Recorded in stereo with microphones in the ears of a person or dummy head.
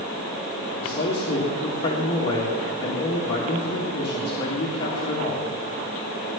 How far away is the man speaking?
About 1.7 m.